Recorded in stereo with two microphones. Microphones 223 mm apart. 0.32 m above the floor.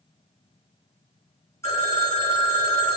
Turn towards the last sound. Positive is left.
turn(degrees=15)  # may be behind; listen again after turning